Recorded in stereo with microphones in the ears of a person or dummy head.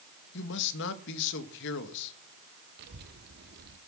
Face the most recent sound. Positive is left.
turn(degrees=-55)  # may be behind; listen again after turning